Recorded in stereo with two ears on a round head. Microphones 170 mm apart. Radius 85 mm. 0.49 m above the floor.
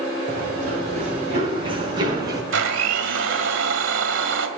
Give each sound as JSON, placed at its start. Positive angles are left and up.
{"t": 0.3, "sound": "running footsteps", "side_deg": -45, "distance_m": 7.5}
{"t": 2.5, "sound": "a blender", "side_deg": -70, "distance_m": 2.0}